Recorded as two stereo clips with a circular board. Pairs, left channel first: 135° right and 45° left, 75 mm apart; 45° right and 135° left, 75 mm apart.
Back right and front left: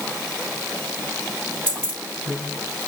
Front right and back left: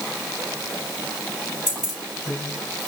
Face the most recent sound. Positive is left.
turn(degrees=155)